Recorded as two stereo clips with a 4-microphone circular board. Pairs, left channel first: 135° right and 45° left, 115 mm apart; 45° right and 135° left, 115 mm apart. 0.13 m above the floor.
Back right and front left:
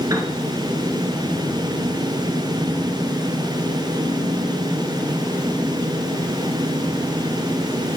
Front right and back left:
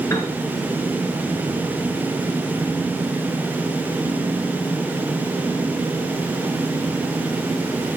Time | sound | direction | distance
0.1 | a piano | 5° left | 2.5 m